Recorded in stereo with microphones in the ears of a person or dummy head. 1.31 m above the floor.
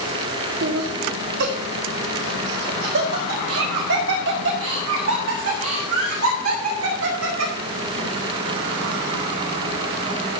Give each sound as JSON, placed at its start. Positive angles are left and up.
{"t": 0.6, "sound": "laughter", "side_deg": -50, "distance_m": 0.8}